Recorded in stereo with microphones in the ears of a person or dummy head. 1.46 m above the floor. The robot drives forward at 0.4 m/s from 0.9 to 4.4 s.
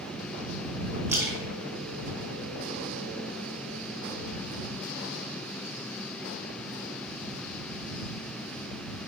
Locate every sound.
1.1 s a splash: 15° right (ahead or behind), 1.0 m; by 2.9 s 10° right (ahead or behind), 1.7 m